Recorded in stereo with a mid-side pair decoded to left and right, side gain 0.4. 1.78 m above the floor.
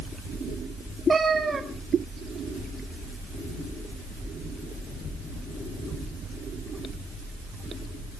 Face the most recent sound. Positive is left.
turn(degrees=-35)